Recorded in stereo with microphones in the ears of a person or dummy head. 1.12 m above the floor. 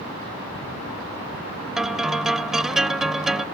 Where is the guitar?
Centre (ahead or behind).